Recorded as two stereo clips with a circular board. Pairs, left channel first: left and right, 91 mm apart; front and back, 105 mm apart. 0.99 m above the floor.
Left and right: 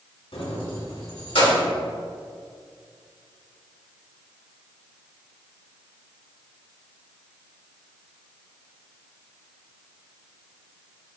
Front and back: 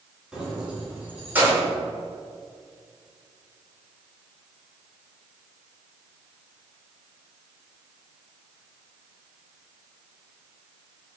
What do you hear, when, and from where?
0.3 s keys jangling: 95° left, 2 m; by 1.6 s 110° left, 3 m